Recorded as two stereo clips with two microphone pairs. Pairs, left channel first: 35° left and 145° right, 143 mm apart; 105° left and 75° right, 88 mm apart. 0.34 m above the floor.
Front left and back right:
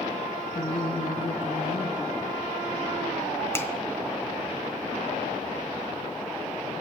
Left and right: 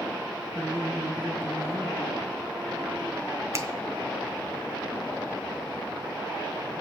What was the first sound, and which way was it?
A woman speaking, 15° right.